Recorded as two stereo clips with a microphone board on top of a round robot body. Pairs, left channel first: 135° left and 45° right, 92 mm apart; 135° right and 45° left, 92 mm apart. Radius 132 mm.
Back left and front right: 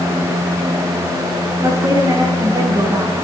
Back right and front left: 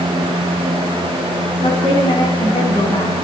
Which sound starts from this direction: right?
A woman speaking, at 1.6 s.